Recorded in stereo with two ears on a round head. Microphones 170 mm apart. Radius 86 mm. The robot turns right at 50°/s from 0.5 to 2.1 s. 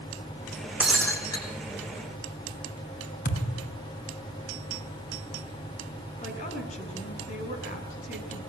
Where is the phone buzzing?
No phone buzzing in this recording.